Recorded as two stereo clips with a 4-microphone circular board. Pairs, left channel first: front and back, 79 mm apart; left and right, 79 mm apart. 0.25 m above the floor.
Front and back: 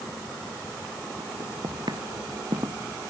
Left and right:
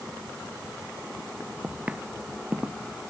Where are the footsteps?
160° right.